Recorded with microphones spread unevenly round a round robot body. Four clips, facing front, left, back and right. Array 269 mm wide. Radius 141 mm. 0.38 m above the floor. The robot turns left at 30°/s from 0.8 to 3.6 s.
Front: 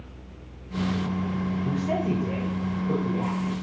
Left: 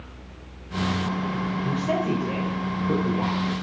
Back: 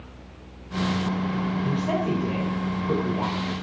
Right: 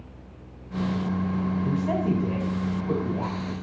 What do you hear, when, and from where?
1.6 s a woman speaking: 95° right, 1.5 m; by 3.5 s 155° right, 1.5 m